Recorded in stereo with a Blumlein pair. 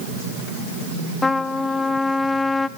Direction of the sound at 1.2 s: 10° left.